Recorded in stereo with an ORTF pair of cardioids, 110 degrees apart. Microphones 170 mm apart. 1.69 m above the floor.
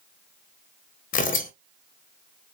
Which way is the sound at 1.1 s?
50° left.